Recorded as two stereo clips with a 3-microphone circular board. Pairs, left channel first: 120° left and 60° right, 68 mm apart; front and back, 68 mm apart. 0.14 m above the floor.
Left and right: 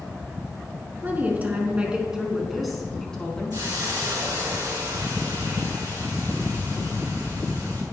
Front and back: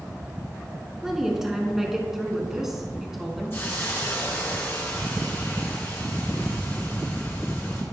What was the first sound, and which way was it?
A woman speaking, 95° right.